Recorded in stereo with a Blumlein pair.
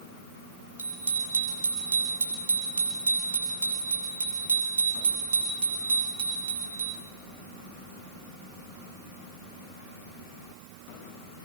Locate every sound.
0.8 s a bicycle bell: 70° right, 9.5 m; by 7.0 s 45° right, 12.5 m